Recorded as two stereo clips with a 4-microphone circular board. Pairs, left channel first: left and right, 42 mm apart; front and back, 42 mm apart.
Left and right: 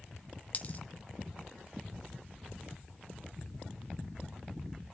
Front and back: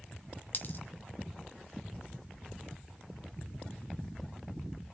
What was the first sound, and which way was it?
A dropped coin, 40° left.